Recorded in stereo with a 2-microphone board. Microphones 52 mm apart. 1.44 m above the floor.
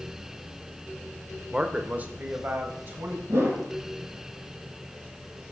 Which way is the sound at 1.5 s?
15° right (ahead or behind).